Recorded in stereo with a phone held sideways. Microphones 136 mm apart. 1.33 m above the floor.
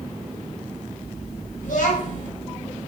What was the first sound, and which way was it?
A child speaking, 75° left (ahead or behind).